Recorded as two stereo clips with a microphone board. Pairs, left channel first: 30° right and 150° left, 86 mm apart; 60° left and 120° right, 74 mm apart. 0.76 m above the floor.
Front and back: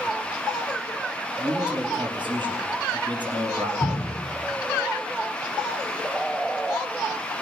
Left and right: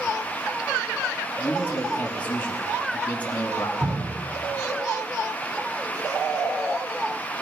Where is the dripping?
95° right, 5 m.